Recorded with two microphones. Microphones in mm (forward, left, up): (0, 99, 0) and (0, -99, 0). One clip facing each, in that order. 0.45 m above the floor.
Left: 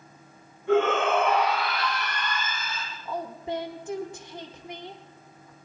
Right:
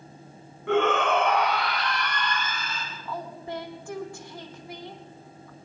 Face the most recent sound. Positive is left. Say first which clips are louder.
# left 4 dB
turn(degrees=20)  # may be behind; listen again after turning